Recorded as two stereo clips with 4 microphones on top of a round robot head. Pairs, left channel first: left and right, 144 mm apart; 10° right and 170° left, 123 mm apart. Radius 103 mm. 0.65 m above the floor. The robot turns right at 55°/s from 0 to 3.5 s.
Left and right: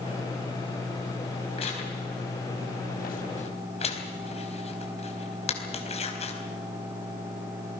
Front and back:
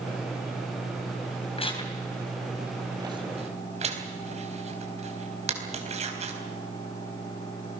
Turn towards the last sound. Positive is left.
turn(degrees=135)